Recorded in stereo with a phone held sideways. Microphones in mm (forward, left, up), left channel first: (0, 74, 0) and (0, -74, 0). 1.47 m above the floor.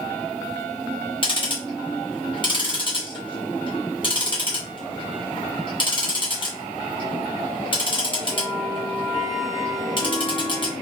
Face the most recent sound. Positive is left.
turn(degrees=35)  # may be behind; listen again after turning